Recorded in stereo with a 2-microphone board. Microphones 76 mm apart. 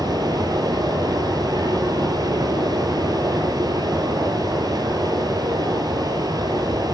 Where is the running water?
50° right (ahead or behind), 1.8 m.